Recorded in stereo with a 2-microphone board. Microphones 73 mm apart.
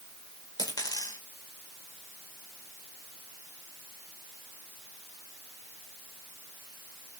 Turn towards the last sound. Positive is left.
turn(degrees=60)  # may be behind; listen again after turning